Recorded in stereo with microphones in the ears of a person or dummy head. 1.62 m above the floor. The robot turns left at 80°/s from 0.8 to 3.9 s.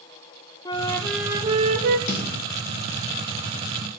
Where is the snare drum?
40° left (ahead or behind), 2.5 m; by 2.3 s 25° left (ahead or behind), 2.5 m.